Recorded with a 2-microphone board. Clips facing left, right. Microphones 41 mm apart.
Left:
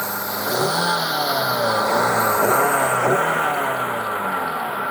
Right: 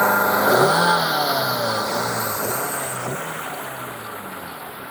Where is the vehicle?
40° right (ahead or behind); by 4.9 s 60° left (ahead or behind).